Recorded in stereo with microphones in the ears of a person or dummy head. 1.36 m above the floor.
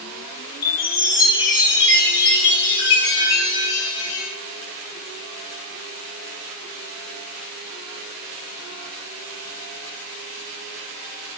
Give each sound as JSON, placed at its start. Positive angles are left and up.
{"t": 0.6, "sound": "a chime", "side_deg": 55, "distance_m": 1.5}